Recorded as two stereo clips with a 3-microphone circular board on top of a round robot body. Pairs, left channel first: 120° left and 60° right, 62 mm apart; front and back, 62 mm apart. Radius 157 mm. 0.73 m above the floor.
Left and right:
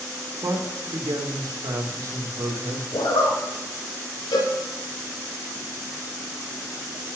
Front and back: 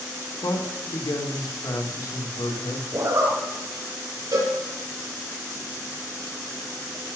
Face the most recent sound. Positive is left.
turn(degrees=140)